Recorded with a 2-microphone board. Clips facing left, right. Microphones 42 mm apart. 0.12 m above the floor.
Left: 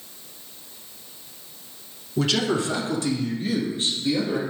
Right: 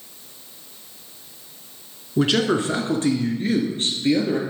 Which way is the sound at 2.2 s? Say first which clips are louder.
Right 3 dB; 25° right (ahead or behind).